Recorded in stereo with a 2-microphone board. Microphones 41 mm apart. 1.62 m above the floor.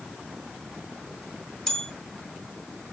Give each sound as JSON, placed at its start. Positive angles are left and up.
{"t": 1.7, "sound": "a bell", "side_deg": 10, "distance_m": 1.5}